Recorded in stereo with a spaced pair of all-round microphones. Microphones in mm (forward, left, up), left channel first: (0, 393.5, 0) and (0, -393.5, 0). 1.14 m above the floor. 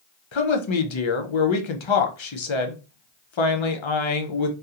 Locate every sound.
0.3 s a woman speaking: 40° left (ahead or behind), 0.5 m